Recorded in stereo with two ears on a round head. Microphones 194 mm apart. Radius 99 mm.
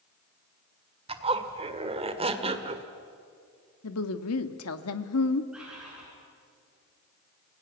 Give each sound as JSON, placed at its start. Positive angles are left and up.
{"t": 1.1, "sound": "a zipper", "side_deg": -30, "distance_m": 1.6}
{"t": 3.8, "sound": "a woman speaking", "side_deg": 80, "distance_m": 1.5}
{"t": 5.5, "sound": "a bird", "side_deg": -5, "distance_m": 8.0}